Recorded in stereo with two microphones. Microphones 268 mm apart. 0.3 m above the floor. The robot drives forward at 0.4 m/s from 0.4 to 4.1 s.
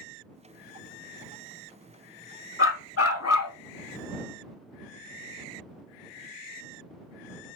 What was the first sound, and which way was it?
A dog barking, 50° left (ahead or behind).